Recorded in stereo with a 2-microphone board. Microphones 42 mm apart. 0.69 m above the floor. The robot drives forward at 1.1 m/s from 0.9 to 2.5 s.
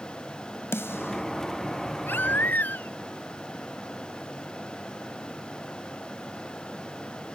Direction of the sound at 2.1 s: 50° left (ahead or behind).